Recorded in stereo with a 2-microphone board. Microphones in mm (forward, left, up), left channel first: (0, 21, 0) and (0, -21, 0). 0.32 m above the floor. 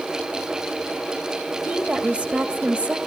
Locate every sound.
1.6 s a woman speaking: 25° right (ahead or behind), 1.5 m